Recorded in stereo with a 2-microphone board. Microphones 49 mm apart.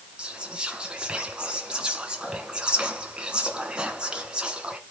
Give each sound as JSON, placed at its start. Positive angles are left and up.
{"t": 0.2, "sound": "whispering", "side_deg": -20, "distance_m": 1.9}